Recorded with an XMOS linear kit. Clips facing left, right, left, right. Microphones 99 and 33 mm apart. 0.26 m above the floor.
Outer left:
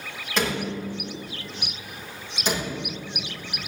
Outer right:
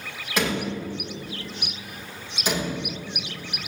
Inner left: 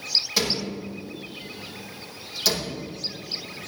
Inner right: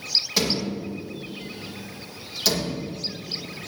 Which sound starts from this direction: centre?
A door slam, at 0.4 s.